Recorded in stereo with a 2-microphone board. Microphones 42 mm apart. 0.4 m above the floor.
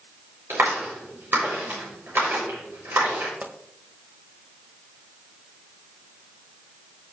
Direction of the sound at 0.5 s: 65° right (ahead or behind).